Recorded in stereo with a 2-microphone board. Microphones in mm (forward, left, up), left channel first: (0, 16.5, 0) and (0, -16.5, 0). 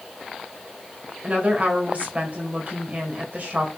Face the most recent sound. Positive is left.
turn(degrees=-50)  # may be behind; listen again after turning